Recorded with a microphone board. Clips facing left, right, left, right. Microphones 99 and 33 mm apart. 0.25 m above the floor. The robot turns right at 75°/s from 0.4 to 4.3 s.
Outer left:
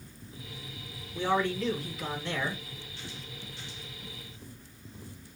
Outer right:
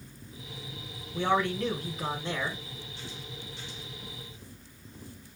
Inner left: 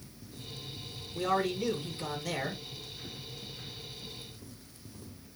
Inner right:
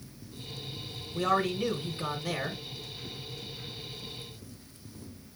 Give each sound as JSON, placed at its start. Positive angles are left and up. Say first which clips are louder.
{"t": 1.1, "sound": "a man speaking", "louder": "outer right 1 dB, inner right 2 dB", "azimuth_deg": -120, "distance_m": 2.5}